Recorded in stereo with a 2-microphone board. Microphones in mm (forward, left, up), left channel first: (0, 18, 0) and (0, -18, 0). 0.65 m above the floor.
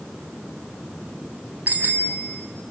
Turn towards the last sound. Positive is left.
turn(degrees=-50)  # may be behind; listen again after turning